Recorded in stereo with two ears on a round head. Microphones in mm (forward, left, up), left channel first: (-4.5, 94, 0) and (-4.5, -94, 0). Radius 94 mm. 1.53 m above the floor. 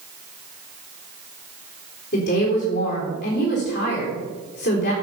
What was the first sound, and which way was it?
A woman speaking, 55° left (ahead or behind).